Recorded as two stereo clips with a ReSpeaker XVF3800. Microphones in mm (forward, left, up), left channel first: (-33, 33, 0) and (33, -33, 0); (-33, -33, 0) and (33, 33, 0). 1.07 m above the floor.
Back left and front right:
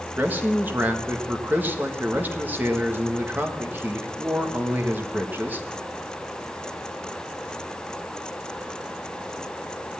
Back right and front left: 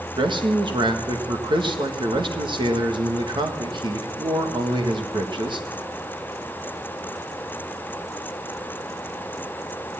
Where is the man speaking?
25° left, 1.7 m.